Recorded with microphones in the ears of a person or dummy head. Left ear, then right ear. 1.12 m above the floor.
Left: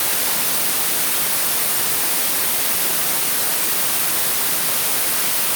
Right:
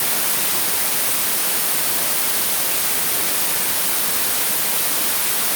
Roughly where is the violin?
No violin in this recording.